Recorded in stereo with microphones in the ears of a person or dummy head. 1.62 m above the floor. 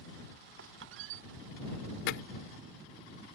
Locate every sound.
0.6 s a squeak: 70° right (ahead or behind)
2.1 s hammering: 75° left (ahead or behind)